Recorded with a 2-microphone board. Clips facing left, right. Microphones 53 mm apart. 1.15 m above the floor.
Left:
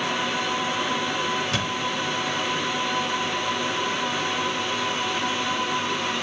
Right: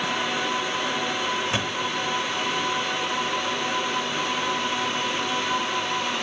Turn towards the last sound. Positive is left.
turn(degrees=-20)  # may be behind; listen again after turning